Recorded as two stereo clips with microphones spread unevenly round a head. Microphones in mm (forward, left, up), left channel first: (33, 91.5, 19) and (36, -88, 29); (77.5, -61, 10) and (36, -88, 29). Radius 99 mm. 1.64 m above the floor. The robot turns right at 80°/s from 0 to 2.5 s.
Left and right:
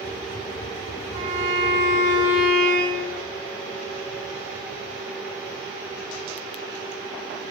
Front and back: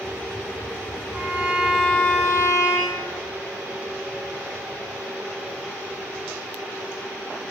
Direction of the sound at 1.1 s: 105° right.